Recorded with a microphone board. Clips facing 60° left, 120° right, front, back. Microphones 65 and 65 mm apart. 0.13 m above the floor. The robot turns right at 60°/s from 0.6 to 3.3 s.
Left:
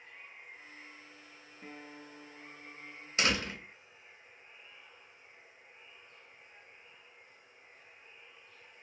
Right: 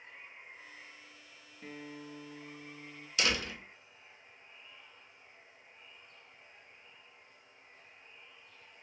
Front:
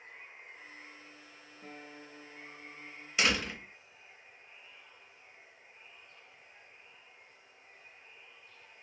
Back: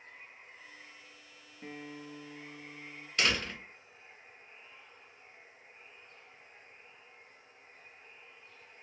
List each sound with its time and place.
0.0 s running water: 35° right, 1.6 m; by 8.8 s 125° left, 1.6 m
1.6 s a guitar: 145° left, 0.6 m; by 3.1 s 125° right, 0.6 m
3.2 s a door slam: 70° left, 0.9 m; by 3.6 s 75° left, 0.9 m